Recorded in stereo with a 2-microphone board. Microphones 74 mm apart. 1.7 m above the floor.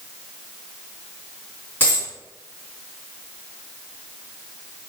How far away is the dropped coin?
About 3 m.